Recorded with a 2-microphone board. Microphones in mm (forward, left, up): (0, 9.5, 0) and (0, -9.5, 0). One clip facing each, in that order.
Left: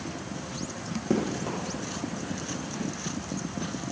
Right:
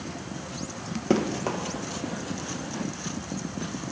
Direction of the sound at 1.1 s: 35° right (ahead or behind).